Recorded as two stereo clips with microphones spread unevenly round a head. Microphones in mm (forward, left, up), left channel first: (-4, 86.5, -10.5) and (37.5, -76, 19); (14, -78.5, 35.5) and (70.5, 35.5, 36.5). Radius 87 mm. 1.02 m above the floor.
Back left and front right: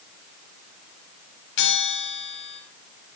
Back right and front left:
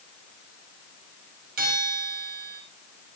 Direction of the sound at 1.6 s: 85° left.